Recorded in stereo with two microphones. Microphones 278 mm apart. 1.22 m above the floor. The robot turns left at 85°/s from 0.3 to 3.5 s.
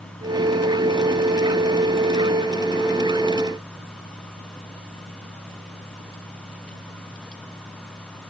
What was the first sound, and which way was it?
Only background noise.